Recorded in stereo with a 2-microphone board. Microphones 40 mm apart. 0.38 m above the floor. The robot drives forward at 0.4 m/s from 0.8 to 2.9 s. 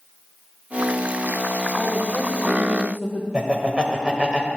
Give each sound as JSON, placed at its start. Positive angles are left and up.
{"t": 1.8, "sound": "a woman speaking", "side_deg": 25, "distance_m": 1.0}
{"t": 3.3, "sound": "laughter", "side_deg": -30, "distance_m": 1.4}